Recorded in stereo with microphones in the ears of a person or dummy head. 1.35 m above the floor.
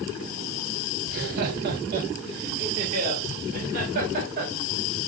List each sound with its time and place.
1.1 s laughter: 55° right (ahead or behind), 0.9 m